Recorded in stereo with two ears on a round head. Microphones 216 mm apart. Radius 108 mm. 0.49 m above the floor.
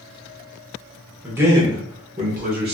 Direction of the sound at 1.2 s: 10° right (ahead or behind).